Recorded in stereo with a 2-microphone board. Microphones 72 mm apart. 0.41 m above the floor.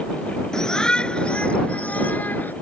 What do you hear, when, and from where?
0.5 s a shout: 10° left (ahead or behind); by 2.5 s 30° left (ahead or behind)